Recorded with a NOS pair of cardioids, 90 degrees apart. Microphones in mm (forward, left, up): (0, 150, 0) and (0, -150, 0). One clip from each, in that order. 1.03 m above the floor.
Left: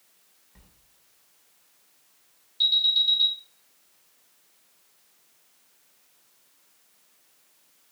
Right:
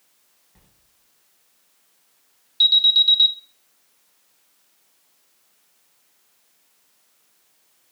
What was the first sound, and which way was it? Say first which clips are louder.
A sliding door: left 1 dB; straight ahead.